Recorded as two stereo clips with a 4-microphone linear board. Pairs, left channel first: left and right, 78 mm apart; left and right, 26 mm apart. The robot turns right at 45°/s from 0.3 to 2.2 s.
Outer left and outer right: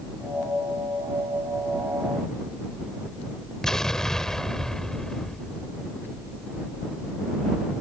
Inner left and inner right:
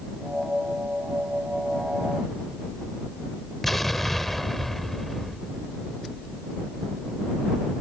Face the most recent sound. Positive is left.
turn(degrees=5)  # may be behind; listen again after turning